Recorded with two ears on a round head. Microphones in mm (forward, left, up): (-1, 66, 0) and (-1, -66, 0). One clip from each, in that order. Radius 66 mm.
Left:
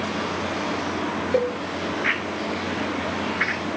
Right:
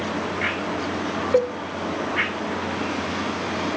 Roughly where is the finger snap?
I don't hear a finger snap.